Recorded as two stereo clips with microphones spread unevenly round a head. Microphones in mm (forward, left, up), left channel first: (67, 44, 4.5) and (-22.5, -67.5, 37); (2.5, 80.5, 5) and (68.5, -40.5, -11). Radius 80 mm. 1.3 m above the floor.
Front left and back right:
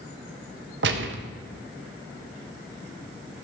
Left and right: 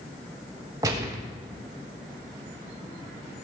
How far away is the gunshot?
About 1.1 m.